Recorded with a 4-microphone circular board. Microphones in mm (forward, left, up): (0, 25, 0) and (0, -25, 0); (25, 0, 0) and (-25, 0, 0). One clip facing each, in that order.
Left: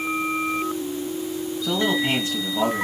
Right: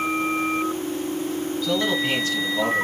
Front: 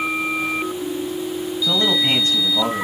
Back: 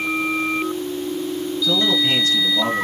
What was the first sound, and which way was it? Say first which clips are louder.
A man speaking: left 1 dB, even; 30° left.